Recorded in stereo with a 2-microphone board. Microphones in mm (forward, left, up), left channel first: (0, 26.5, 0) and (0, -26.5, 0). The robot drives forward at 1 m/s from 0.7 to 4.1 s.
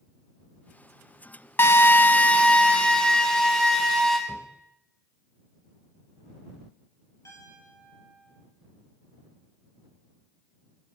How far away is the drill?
About 0.6 m.